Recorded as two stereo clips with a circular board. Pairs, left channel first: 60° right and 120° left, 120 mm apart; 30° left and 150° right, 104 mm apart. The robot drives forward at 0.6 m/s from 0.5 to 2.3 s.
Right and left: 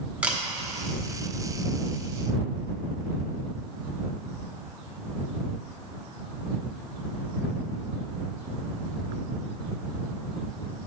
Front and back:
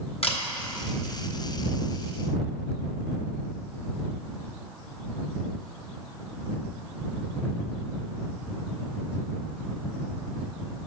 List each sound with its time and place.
0.2 s a camera shutter: 40° left, 0.8 m